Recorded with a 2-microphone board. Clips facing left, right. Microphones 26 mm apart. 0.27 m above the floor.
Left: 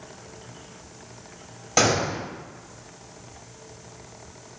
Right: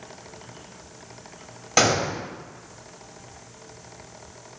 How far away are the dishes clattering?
No dishes clattering in this recording.